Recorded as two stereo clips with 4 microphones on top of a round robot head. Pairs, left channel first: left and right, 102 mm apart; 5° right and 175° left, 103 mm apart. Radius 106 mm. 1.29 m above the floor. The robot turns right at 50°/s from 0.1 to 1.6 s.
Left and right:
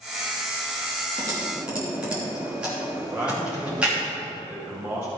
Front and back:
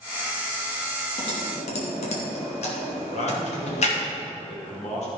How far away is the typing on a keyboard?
About 3 m.